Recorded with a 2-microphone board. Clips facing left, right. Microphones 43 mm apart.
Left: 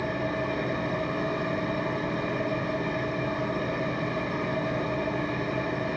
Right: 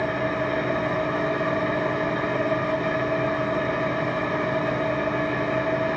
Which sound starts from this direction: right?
An engine running, at 0.0 s.